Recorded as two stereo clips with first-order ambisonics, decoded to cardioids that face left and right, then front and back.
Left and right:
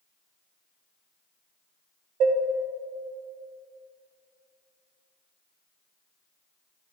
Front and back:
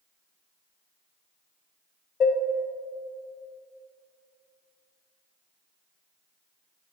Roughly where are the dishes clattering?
Ahead right.